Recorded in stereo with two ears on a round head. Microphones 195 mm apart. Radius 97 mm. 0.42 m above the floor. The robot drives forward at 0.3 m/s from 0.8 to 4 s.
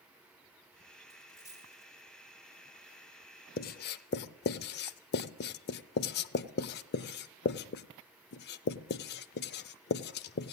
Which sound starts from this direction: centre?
A dropped coin, at 1.1 s.